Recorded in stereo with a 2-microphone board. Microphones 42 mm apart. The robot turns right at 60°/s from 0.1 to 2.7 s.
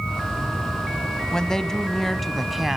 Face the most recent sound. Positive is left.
turn(degrees=-5)  # may be behind; listen again after turning